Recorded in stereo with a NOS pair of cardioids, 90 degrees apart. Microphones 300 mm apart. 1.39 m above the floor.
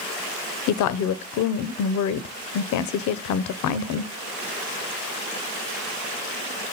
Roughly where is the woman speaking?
Ahead left.